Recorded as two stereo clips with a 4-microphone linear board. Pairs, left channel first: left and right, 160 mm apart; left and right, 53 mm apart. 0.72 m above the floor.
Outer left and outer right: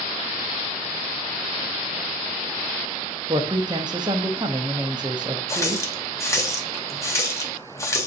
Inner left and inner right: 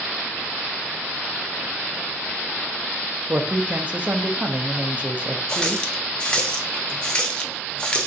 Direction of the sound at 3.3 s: 25° right (ahead or behind).